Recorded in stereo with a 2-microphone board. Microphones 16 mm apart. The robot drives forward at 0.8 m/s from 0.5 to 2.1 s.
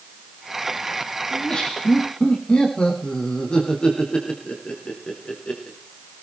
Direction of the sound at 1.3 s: 50° left (ahead or behind).